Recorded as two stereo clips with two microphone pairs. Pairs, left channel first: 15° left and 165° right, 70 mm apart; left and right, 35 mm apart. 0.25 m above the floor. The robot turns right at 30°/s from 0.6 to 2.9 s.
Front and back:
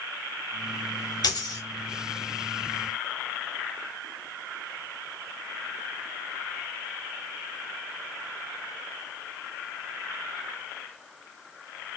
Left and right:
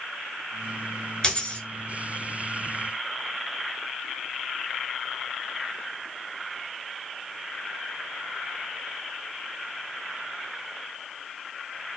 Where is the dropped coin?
25° left, 1.0 m; by 1.6 s 35° left, 1.0 m.